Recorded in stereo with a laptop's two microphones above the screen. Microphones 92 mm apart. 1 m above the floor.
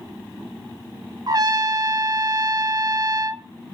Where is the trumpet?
45° right (ahead or behind), 1.0 m.